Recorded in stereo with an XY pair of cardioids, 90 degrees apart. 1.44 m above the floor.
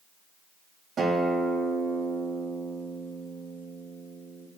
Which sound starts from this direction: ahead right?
A guitar, at 1.0 s.